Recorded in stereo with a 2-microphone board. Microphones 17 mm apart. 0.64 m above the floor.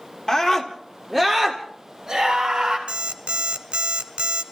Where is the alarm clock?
75° right (ahead or behind), 1.3 m.